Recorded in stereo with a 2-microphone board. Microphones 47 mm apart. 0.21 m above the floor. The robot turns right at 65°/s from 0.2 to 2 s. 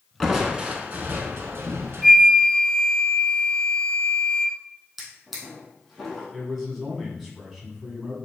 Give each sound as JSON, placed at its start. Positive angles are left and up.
{"t": 0.2, "sound": "crushing", "azimuth_deg": 180, "distance_m": 0.7}
{"t": 2.0, "sound": "a flute", "side_deg": -5, "distance_m": 0.6}
{"t": 5.0, "sound": "a drawer", "side_deg": 5, "distance_m": 2.0}
{"t": 6.3, "sound": "a man speaking", "side_deg": 0, "distance_m": 1.3}